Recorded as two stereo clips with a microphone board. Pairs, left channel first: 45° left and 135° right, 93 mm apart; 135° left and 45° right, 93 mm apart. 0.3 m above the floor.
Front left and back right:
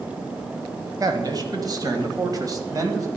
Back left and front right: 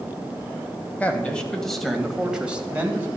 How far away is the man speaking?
About 1.8 m.